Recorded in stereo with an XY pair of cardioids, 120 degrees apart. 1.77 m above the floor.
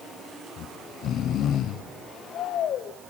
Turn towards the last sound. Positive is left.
turn(degrees=60)